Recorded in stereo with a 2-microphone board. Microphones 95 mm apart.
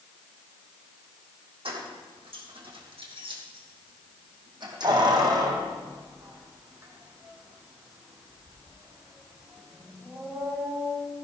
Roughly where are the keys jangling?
Right.